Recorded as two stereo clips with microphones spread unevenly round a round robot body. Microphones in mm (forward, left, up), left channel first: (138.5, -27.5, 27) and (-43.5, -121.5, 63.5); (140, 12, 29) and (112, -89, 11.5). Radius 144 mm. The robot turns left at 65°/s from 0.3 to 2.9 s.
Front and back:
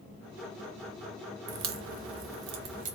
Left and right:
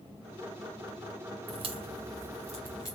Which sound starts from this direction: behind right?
A crack, at 1.5 s.